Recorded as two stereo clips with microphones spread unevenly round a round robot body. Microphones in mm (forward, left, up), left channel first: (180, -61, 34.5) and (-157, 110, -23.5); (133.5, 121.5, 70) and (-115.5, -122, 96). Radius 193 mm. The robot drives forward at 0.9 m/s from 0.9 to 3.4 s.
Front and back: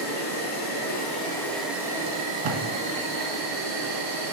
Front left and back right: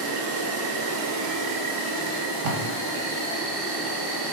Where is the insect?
95° right, 1.4 m; by 4.3 s 155° right, 2.5 m.